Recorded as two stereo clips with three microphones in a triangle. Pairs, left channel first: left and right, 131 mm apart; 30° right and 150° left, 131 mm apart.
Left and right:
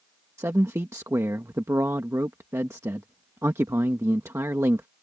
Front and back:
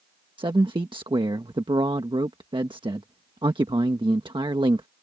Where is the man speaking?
160° right.